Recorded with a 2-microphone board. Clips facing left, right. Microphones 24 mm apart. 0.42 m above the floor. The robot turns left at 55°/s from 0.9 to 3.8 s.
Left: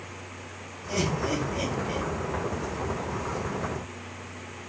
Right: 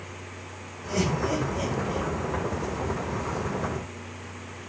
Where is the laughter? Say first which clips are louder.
Right 1 dB; 15° right (ahead or behind), 4 m; by 2.1 s 50° left (ahead or behind), 4 m.